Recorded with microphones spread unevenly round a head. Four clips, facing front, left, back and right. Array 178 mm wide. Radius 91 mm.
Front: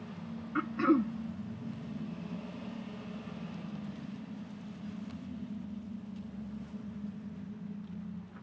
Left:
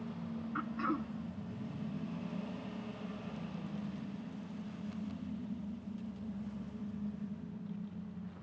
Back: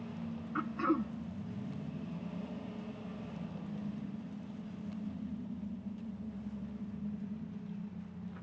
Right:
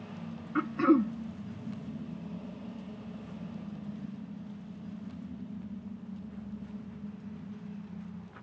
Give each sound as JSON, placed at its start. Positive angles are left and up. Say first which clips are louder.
{"t": 0.6, "sound": "throat clearing", "louder": "right 13 dB, front 5 dB", "azimuth_deg": -60}